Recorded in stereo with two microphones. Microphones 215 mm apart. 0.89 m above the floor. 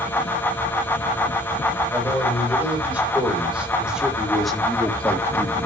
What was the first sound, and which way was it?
A man speaking, 10° right (ahead or behind).